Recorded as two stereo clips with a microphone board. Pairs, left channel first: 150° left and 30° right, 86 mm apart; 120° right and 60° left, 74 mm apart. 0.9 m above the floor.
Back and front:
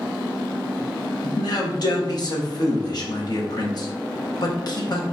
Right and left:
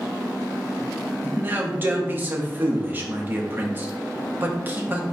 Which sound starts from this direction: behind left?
A man speaking, at 1.2 s.